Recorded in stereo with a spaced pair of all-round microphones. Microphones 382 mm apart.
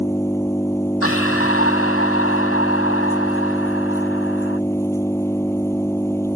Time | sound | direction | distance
0.0 | an engine running | 5° left (ahead or behind) | ?
1.0 | breathing | 35° left (ahead or behind) | ?